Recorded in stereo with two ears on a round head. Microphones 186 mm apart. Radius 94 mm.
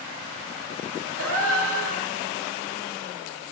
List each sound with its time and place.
1.2 s a gasp: 75° right (ahead or behind), 1.7 m